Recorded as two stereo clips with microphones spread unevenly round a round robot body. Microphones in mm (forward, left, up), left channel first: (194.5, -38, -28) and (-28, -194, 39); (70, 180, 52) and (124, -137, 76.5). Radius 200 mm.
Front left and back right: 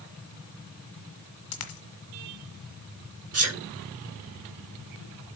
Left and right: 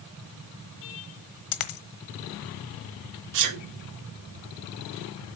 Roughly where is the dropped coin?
Left.